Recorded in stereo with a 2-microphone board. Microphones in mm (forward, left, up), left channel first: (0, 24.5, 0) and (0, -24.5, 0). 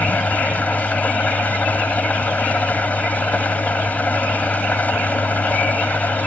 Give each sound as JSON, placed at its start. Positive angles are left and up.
{"t": 0.0, "sound": "an engine running", "side_deg": 35}